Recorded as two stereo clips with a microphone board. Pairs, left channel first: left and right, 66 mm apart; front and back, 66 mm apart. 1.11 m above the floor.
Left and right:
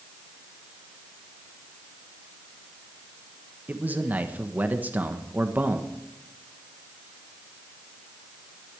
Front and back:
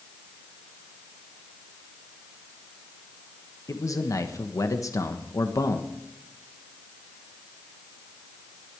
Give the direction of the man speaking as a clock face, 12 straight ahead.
1 o'clock.